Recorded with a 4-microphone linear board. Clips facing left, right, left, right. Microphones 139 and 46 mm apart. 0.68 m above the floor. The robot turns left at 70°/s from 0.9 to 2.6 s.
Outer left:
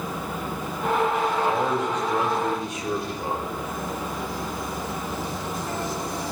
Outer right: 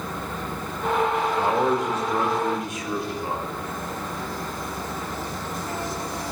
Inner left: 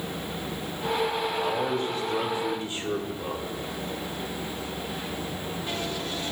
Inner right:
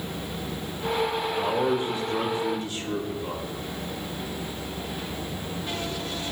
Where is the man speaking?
130° right, 2.0 m; by 3.6 s 140° left, 2.0 m.